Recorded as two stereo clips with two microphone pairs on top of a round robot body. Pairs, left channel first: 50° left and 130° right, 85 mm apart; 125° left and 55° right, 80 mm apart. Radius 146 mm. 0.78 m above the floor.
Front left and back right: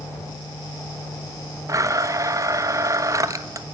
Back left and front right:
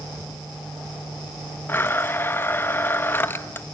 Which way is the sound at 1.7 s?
175° right.